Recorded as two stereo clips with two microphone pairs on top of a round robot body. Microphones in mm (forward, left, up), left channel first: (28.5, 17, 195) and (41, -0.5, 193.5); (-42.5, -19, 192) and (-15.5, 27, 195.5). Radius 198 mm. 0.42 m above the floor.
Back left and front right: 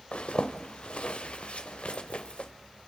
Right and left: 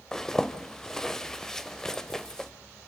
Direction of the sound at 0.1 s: 160° left.